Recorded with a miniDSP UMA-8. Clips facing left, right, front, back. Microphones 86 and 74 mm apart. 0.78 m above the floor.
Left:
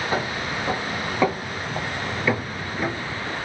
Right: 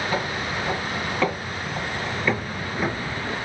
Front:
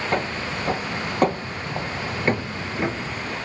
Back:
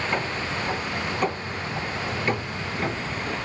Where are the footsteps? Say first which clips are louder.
Even, front 2 dB; 25° left, 2 m; by 3.4 s 90° right, 0.7 m.